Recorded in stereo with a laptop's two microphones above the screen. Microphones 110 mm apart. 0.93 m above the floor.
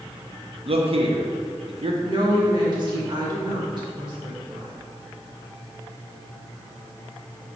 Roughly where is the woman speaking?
Right.